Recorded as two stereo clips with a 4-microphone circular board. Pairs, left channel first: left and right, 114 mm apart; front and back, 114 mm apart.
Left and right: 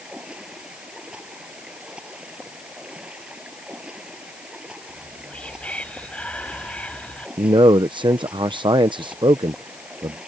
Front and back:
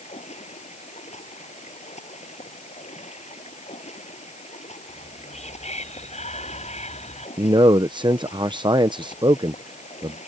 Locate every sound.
0.0 s running water: 10° right
4.9 s whispering: 10° left
7.4 s a man speaking: 135° right